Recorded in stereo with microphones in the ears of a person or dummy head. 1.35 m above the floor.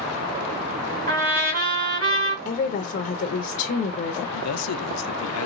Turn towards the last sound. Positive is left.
turn(degrees=80)